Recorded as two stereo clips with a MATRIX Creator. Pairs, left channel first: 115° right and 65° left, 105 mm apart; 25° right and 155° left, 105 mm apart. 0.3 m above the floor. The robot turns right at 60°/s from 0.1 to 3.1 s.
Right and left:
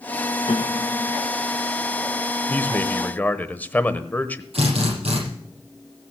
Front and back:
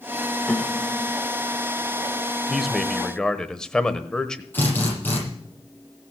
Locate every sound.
0.5 s a piano: 105° right, 0.9 m; by 1.1 s 65° right, 0.9 m
2.5 s a man speaking: 125° right, 0.9 m; by 4.4 s 90° right, 0.9 m
4.5 s a drill: 50° left, 8.5 m